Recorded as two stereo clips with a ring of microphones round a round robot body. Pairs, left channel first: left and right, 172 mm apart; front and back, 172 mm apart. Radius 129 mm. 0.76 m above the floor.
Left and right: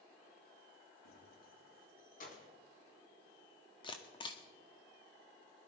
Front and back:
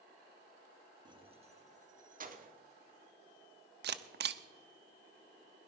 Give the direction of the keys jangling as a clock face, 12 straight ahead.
8 o'clock.